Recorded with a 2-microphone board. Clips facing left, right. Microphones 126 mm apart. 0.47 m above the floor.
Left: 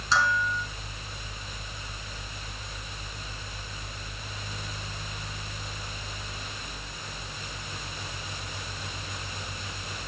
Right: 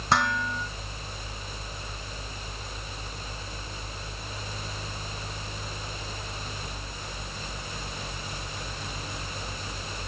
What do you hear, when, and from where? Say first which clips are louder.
0.1 s dishes clattering: even; 65° right (ahead or behind), 4 m